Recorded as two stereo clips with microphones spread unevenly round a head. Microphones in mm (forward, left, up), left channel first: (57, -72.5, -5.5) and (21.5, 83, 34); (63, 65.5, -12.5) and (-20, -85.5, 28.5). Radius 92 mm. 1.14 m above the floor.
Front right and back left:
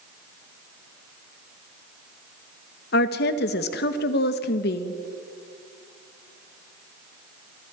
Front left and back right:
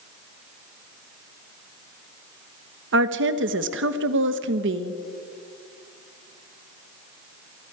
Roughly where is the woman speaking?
Right.